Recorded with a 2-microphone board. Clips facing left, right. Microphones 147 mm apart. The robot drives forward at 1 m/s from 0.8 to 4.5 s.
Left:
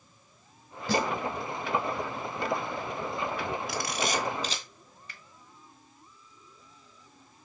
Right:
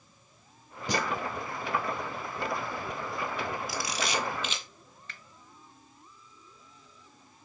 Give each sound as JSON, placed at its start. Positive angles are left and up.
{"t": 0.9, "sound": "a snare drum", "side_deg": -15, "distance_m": 1.6}
{"t": 3.7, "sound": "a camera shutter", "side_deg": 60, "distance_m": 0.9}
{"t": 5.1, "sound": "a finger snap", "side_deg": 15, "distance_m": 1.4}